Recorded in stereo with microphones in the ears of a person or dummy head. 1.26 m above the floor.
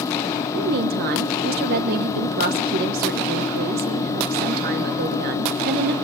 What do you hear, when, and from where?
0.5 s a woman speaking: 50° right (ahead or behind), 1.1 m